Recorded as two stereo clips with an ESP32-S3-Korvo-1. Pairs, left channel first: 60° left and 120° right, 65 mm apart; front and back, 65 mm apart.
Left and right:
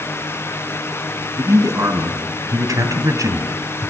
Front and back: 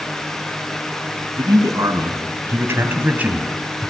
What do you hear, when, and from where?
1.4 s a man speaking: 155° right, 4 m; by 3.9 s 95° right, 2.5 m